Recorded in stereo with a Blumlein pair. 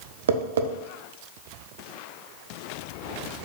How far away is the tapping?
About 0.5 m.